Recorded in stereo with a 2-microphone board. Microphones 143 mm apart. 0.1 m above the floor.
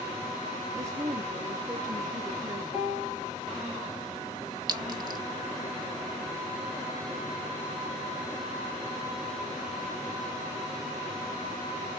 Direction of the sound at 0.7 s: 20° right (ahead or behind).